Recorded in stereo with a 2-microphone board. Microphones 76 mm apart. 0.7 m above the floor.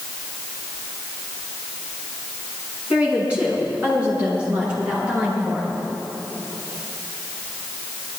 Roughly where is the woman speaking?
Centre.